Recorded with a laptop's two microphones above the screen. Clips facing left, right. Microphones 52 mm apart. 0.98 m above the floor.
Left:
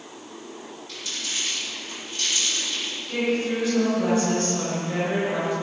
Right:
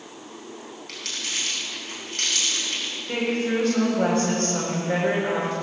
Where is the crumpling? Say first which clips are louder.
Right 1 dB; 75° right (ahead or behind), 4.5 m.